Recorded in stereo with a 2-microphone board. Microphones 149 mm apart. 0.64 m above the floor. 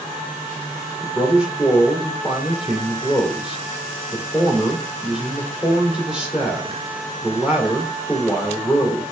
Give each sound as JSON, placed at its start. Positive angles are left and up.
{"t": 1.0, "sound": "a man speaking", "side_deg": -5, "distance_m": 2.0}